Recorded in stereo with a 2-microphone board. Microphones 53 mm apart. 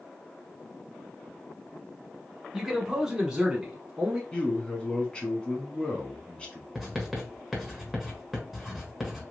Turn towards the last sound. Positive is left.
turn(degrees=0)  # may be behind; listen again after turning